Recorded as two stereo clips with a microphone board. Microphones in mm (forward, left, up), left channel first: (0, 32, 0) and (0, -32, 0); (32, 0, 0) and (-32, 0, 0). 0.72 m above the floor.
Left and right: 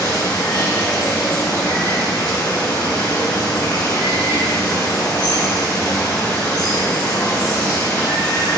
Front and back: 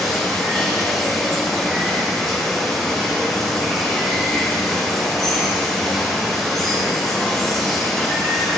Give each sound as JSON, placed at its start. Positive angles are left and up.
{"t": 0.0, "sound": "running water", "azimuth_deg": 85, "distance_m": 1.6}